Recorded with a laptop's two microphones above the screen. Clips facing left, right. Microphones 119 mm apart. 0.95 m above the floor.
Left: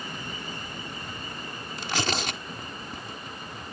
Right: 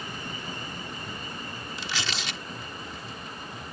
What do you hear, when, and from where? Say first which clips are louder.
1.8 s tearing paper: left 7 dB; 50° left (ahead or behind)